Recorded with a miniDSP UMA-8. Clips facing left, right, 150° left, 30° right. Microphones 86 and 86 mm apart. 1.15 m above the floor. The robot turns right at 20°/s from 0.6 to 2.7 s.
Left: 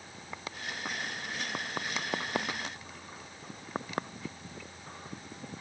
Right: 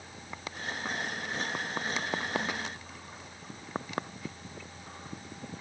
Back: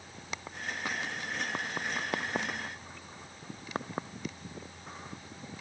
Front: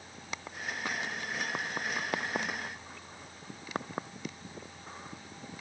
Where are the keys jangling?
I don't hear keys jangling.